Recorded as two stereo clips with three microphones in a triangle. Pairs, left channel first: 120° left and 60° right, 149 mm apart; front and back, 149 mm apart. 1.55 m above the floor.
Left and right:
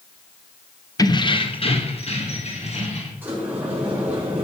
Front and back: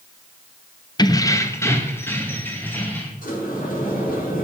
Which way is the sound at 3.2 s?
15° left.